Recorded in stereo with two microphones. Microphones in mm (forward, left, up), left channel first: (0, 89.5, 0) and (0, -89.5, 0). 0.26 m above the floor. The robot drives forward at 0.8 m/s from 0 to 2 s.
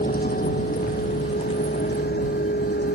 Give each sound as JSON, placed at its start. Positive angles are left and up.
{"t": 0.0, "sound": "a vehicle", "side_deg": 55}